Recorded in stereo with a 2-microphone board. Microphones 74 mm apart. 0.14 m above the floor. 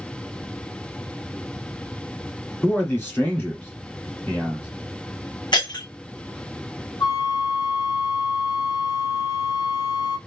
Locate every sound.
2.6 s a man speaking: 25° left (ahead or behind), 1.8 m
5.5 s breaking glass: 85° left, 2 m
7.0 s a flute: 75° left (ahead or behind), 1.6 m